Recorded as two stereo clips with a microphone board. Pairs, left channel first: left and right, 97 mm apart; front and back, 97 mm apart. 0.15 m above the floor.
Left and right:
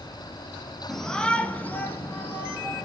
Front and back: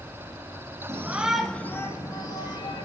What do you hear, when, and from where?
0.9 s a shout: 175° left, 1.1 m; by 2.9 s 25° left, 2 m